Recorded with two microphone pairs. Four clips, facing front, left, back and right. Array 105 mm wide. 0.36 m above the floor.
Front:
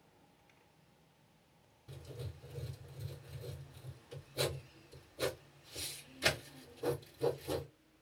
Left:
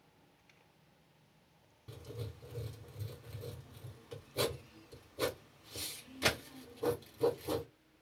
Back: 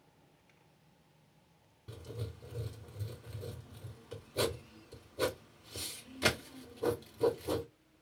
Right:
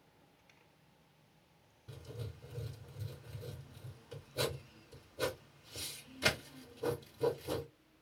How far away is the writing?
About 3 m.